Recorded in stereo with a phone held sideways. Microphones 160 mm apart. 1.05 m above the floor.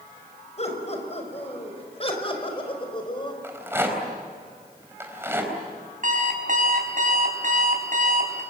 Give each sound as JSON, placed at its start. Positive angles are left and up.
{"t": 0.6, "sound": "laughter", "side_deg": 45, "distance_m": 6.0}
{"t": 3.4, "sound": "a rattle", "side_deg": -15, "distance_m": 4.0}
{"t": 6.0, "sound": "an alarm clock", "side_deg": -60, "distance_m": 4.5}